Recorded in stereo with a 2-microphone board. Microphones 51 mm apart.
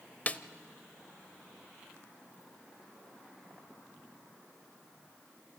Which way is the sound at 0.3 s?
30° left (ahead or behind).